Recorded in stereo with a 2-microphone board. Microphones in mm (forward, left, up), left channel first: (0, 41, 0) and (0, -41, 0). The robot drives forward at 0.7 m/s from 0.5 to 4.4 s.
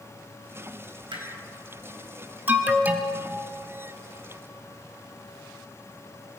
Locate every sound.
1.1 s hammering: 80° right, 4 m
2.5 s an alarm: 25° right (ahead or behind), 1.5 m; by 3.2 s 20° right (ahead or behind), 1.6 m